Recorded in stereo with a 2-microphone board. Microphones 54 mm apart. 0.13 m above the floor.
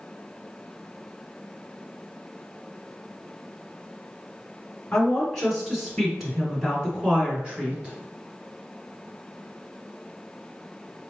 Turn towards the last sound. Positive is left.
turn(degrees=-20)  # may be behind; listen again after turning